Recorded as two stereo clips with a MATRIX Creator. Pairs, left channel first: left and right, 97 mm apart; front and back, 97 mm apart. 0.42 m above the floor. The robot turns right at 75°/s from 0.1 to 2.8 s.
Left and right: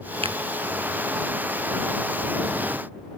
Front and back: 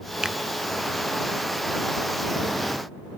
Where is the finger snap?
100° right; by 0.4 s 90° right.